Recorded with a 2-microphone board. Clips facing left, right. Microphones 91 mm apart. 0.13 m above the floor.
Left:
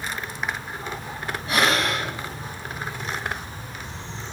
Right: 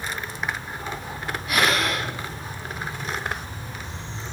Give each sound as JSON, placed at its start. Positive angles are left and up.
{"t": 1.5, "sound": "breathing", "side_deg": 30, "distance_m": 2.0}